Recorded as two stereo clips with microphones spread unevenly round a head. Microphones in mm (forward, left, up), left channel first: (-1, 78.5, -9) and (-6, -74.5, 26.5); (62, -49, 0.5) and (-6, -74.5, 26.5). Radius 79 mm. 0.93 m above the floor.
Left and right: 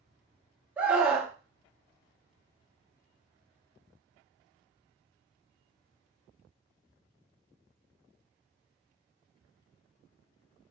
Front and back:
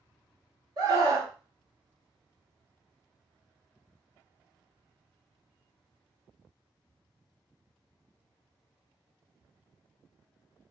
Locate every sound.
0.8 s a scream: 175° left, 0.9 m